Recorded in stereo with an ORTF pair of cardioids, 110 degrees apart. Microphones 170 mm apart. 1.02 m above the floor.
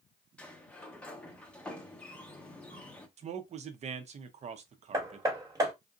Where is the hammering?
20° right, 1.3 m.